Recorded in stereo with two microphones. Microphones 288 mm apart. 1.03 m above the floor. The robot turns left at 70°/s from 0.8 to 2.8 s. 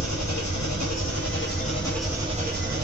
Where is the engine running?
85° left, 1.0 m; by 2.9 s 55° right, 1.0 m.